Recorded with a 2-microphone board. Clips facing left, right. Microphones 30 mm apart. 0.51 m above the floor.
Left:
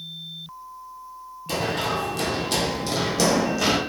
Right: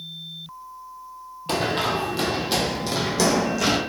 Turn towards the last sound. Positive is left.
turn(degrees=15)  # may be behind; listen again after turning